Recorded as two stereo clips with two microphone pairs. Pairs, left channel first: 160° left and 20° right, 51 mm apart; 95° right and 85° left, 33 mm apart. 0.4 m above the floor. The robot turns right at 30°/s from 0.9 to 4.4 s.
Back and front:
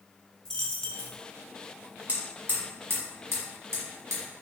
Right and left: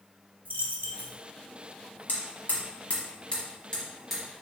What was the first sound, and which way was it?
A dropped coin, 90° left.